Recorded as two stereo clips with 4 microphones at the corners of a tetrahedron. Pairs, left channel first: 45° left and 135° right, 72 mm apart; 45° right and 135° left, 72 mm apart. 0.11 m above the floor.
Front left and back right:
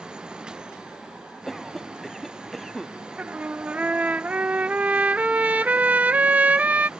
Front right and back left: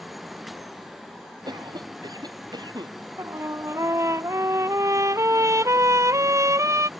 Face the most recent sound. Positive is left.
turn(degrees=160)